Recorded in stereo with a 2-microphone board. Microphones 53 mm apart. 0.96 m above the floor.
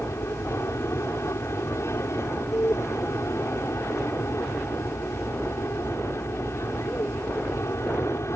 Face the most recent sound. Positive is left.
turn(degrees=60)  # may be behind; listen again after turning